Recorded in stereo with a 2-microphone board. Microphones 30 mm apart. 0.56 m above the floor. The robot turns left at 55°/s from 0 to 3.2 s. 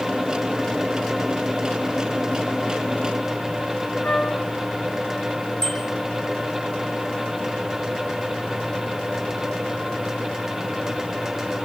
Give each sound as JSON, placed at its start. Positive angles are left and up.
{"t": 4.0, "sound": "a flute", "side_deg": 70, "distance_m": 4.0}
{"t": 5.6, "sound": "a bicycle bell", "side_deg": 25, "distance_m": 8.0}